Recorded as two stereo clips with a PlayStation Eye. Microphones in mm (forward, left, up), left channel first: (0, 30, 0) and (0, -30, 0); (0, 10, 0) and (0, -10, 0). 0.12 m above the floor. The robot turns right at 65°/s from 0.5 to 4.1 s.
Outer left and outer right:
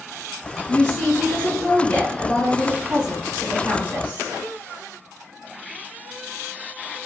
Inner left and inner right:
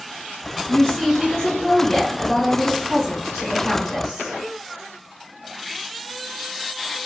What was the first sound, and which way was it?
A woman speaking, 20° left (ahead or behind).